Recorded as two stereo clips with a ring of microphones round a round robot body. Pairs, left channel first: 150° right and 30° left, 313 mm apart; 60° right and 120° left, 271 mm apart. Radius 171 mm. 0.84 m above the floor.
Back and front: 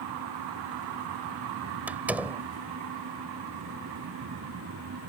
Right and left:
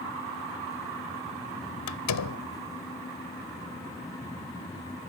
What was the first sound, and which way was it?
A door slam, 55° right.